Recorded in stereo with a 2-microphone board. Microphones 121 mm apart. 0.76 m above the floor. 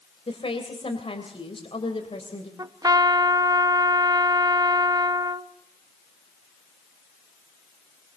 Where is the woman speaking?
50° left (ahead or behind), 3 m.